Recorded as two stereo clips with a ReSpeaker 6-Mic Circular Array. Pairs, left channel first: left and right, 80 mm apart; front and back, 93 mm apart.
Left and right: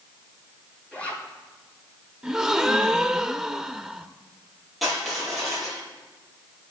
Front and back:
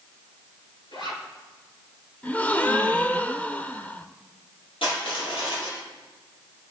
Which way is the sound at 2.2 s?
15° right.